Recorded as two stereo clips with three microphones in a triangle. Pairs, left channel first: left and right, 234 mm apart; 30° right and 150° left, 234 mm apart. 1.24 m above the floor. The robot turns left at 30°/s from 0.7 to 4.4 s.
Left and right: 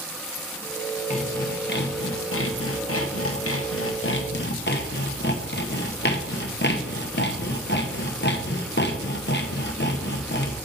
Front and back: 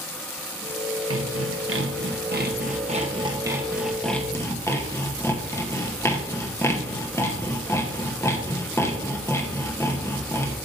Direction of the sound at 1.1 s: 145° left.